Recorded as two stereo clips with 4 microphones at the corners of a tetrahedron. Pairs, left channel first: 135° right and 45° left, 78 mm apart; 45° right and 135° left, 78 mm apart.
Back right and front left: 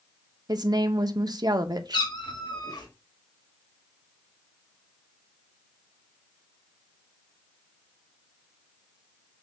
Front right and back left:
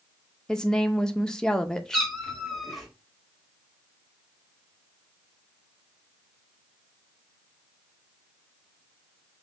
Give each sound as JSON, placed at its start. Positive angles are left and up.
{"t": 0.5, "sound": "a woman speaking", "azimuth_deg": 35, "distance_m": 0.5}
{"t": 1.9, "sound": "a cat meowing", "azimuth_deg": -135, "distance_m": 1.3}